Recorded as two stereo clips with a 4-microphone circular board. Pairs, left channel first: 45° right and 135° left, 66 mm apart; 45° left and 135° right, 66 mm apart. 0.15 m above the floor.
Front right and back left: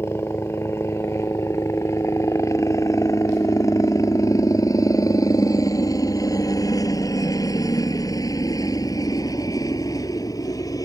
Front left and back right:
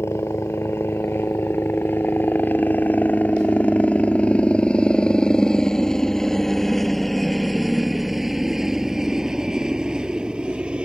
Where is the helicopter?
Straight ahead; by 10.9 s 60° right.